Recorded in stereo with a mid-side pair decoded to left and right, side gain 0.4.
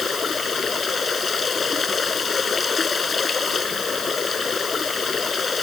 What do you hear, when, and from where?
0.0 s running water: 45° left